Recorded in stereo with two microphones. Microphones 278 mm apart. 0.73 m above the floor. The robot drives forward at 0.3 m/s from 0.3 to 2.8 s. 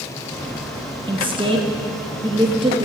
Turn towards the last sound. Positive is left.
turn(degrees=-20)  # may be behind; listen again after turning